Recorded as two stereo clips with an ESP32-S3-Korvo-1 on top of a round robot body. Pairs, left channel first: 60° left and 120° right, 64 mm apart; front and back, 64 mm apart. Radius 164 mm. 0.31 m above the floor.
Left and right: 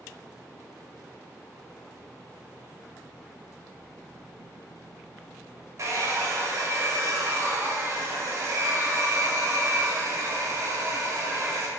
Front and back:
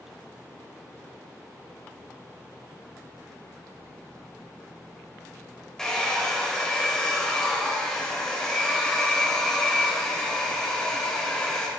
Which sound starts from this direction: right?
A hair dryer, at 5.8 s.